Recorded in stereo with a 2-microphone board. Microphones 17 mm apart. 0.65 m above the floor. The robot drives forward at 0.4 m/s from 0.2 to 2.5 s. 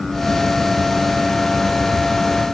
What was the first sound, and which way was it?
Only background noise.